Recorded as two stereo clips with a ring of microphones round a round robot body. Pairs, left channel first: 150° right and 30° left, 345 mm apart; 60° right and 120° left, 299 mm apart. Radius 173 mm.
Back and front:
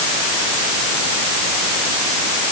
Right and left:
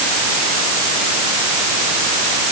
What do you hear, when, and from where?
Only background noise.